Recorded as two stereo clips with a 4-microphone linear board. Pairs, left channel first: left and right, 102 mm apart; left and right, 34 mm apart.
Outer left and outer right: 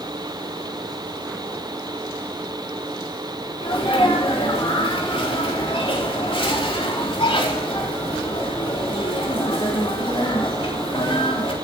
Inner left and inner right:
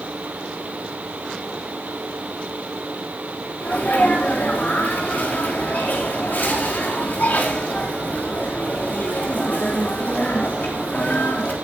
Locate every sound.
3.6 s a sneeze: 65° left (ahead or behind), 4 m